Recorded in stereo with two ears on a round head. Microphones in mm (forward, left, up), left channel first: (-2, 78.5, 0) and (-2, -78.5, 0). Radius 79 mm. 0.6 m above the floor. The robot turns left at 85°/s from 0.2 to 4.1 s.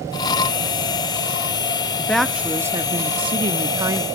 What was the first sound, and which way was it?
A woman speaking, 10° left (ahead or behind).